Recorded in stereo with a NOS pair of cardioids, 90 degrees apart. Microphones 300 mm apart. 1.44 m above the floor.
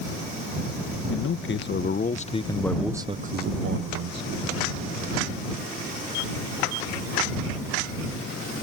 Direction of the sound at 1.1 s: 45° left.